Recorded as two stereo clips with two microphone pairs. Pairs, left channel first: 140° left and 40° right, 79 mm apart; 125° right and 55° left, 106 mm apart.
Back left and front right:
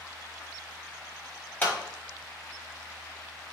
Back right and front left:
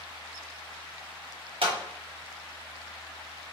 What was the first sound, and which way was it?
A clap, 75° left.